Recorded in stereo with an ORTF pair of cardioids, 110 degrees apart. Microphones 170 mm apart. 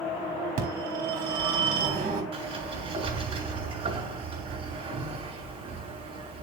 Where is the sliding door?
35° right, 4 m.